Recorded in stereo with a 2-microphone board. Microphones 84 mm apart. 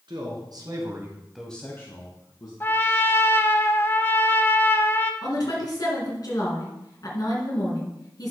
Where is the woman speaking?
50° left (ahead or behind), 3 m.